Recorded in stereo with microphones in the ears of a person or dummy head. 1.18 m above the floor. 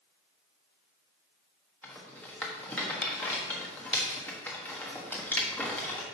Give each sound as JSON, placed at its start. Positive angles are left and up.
{"t": 1.8, "sound": "a rattle", "side_deg": 15, "distance_m": 1.3}